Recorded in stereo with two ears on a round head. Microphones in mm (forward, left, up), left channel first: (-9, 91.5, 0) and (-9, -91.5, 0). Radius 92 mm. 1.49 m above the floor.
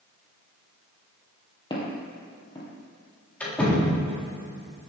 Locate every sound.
1.7 s footsteps: 20° left (ahead or behind), 2 m
3.4 s a door slam: 10° left (ahead or behind), 3 m